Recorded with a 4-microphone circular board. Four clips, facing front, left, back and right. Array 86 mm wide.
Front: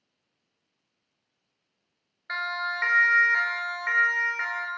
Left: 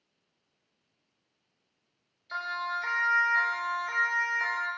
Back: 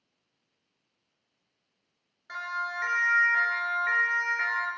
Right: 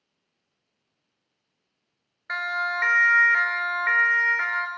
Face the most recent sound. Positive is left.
turn(degrees=-90)